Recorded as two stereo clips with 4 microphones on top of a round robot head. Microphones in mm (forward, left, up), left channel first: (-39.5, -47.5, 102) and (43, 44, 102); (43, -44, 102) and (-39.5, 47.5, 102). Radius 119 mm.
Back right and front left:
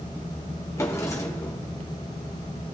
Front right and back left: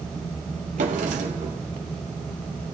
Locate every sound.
0.8 s a drawer: 160° left, 1.2 m